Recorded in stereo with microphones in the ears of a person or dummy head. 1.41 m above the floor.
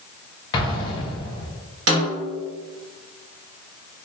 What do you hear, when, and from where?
0.5 s an explosion: 25° left (ahead or behind), 0.7 m
1.9 s a snare drum: 65° right (ahead or behind), 1.2 m